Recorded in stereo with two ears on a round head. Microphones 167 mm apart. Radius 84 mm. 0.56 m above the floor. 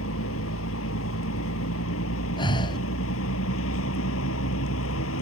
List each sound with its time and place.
0.0 s a vehicle: 85° left
2.4 s breathing: 25° left (ahead or behind)